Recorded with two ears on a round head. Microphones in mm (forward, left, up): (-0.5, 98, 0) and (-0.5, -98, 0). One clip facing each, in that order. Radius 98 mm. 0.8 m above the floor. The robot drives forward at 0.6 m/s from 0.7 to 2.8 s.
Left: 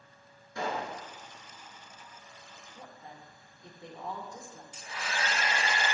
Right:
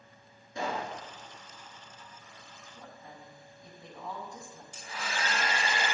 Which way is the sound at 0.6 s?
15° right (ahead or behind).